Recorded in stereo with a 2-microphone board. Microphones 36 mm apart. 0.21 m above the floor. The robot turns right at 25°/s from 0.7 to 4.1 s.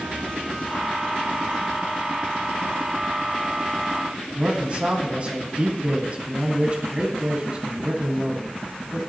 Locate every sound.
4.3 s a man speaking: 40° right (ahead or behind), 1.4 m